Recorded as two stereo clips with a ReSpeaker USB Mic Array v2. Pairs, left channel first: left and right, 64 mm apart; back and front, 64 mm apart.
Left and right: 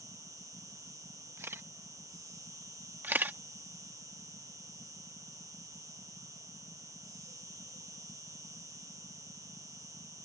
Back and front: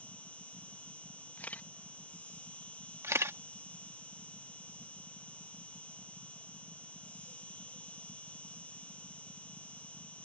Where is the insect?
115° right.